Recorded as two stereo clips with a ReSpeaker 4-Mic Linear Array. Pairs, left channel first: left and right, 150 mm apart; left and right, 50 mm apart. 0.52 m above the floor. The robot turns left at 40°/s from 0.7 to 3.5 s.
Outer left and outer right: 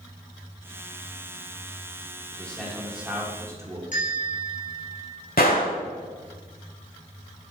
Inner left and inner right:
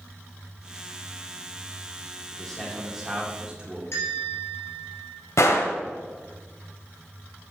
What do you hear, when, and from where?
2.3 s a man speaking: 20° left, 1.5 m; by 3.8 s 30° right, 1.5 m
3.9 s a bell: 60° left (ahead or behind), 3.5 m
5.4 s a gunshot: 80° left, 1.1 m